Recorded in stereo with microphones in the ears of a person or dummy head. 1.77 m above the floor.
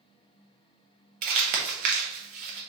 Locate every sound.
1.2 s crumpling: 35° right (ahead or behind), 1.0 m